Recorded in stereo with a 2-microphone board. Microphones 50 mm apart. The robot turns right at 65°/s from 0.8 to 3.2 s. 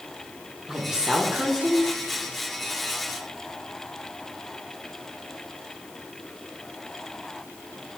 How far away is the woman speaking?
About 0.8 m.